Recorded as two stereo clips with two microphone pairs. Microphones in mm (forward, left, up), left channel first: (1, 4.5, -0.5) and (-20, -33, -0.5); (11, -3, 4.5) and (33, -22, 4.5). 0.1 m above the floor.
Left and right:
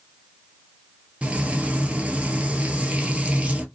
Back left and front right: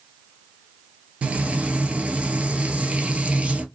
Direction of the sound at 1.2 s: 65° right.